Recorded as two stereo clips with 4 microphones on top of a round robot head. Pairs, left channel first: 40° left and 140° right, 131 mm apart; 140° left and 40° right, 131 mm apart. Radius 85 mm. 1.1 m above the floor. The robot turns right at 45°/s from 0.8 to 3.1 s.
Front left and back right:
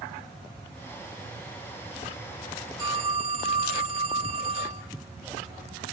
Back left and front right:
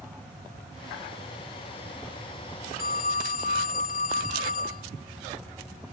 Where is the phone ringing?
155° left, 1.1 m; by 4.8 s 170° left, 1.1 m.